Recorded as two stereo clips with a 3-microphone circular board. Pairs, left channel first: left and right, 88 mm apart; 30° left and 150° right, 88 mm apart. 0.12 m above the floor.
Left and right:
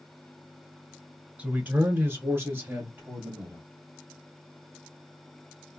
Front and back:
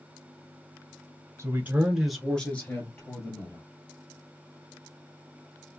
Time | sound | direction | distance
1.4 | a man speaking | 145° right | 1.2 m